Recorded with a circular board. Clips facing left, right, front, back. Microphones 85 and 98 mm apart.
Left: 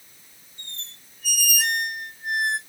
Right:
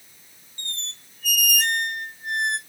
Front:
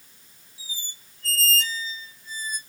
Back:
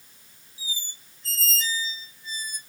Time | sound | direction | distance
0.6 | a squeak | 5° left | 0.6 m